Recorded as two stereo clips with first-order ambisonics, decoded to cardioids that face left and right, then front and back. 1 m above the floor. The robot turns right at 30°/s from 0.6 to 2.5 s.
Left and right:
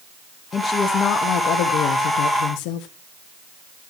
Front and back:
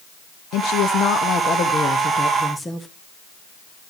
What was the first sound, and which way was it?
A woman speaking, 25° left.